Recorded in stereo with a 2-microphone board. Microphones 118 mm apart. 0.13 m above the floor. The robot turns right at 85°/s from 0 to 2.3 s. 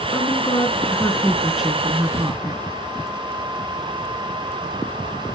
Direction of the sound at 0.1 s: 55° left.